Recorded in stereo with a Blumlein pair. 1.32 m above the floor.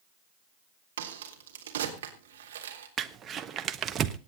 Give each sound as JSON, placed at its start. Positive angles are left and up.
{"t": 1.0, "sound": "a crack", "azimuth_deg": -60, "distance_m": 3.5}
{"t": 3.0, "sound": "crumpling", "azimuth_deg": -25, "distance_m": 1.1}